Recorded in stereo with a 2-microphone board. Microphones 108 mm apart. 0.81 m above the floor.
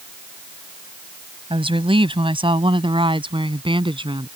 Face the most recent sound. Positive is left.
turn(degrees=-50)  # may be behind; listen again after turning